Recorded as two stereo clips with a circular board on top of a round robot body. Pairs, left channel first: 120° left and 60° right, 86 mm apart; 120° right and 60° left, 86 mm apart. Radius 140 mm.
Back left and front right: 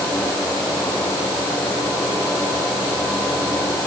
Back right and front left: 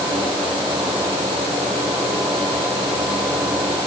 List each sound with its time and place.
Only background noise.